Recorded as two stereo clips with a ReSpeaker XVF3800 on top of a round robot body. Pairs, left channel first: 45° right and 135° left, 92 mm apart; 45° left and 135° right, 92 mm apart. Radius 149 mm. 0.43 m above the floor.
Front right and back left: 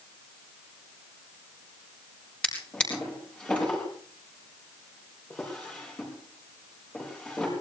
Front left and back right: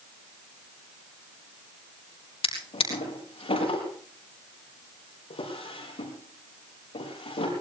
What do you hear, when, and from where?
2.4 s a drawer: 35° left, 5.5 m